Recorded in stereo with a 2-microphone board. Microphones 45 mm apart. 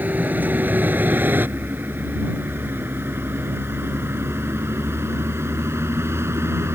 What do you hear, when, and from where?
0.0 s a vehicle: 40° right (ahead or behind); by 6.8 s 85° right